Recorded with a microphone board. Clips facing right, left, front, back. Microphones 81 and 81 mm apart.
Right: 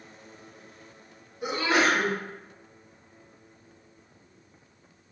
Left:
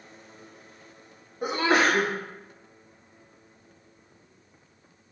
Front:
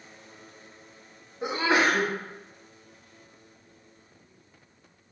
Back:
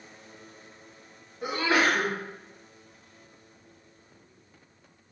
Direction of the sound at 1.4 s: 60° left.